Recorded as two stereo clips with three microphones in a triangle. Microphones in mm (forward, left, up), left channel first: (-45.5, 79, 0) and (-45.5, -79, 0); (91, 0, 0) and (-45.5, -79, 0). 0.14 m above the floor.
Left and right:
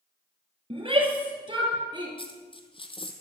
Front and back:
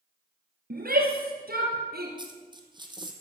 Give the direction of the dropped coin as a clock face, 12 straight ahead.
7 o'clock.